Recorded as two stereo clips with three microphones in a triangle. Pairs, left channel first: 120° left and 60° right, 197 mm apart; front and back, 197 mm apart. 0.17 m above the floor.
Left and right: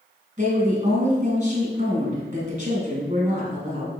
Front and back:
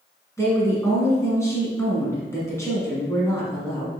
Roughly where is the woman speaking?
Ahead right.